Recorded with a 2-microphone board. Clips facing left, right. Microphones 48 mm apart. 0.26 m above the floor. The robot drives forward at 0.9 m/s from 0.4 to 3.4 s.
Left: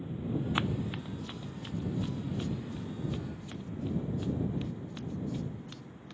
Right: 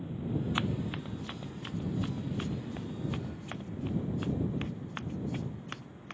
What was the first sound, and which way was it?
Running footsteps, 5° left (ahead or behind).